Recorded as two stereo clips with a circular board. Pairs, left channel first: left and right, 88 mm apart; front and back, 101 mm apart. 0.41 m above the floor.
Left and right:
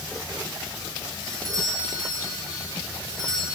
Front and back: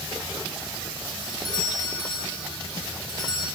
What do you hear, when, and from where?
1.2 s a doorbell: 40° right, 9.5 m